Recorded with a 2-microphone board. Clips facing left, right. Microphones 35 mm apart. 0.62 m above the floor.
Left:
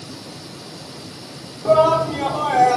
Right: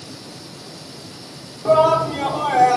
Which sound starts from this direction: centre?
A shout, at 1.6 s.